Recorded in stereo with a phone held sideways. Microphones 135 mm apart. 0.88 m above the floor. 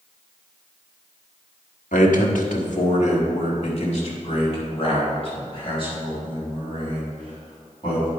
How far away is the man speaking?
About 1.4 m.